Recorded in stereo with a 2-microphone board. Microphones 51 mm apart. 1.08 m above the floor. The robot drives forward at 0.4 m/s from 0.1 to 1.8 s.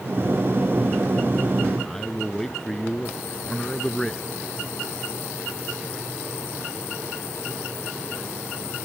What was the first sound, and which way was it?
A man speaking, 10° left (ahead or behind).